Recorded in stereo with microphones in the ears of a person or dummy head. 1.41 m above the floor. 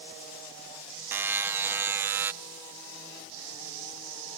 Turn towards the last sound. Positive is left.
turn(degrees=-10)  # may be behind; listen again after turning